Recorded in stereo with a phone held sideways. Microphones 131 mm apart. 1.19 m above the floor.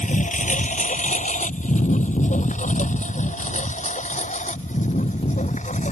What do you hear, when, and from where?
0.0 s a lawn mower: 75° left (ahead or behind); by 5.9 s 65° left (ahead or behind)